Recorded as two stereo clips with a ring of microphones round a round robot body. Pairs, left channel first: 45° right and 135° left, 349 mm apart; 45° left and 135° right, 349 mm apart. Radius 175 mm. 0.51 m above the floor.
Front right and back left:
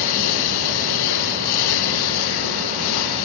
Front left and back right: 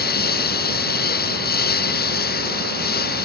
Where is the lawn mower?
20° right.